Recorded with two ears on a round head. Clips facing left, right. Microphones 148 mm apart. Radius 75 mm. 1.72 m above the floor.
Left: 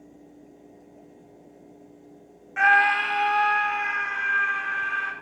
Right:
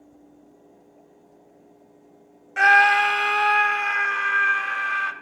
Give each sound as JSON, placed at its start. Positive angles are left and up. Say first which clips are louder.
{"t": 2.6, "sound": "a scream", "louder": "right 4 dB", "side_deg": -40, "distance_m": 1.0}